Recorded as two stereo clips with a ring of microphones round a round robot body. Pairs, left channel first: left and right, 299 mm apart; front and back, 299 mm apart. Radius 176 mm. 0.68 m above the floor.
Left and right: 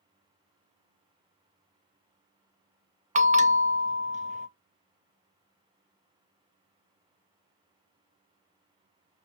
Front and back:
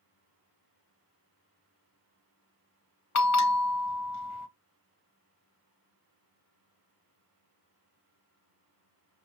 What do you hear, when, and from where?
3.1 s a bell: 25° right, 0.6 m